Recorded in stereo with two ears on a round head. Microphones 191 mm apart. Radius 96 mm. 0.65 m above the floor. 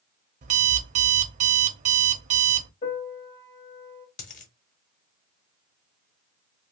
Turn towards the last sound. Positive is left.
turn(degrees=35)  # may be behind; listen again after turning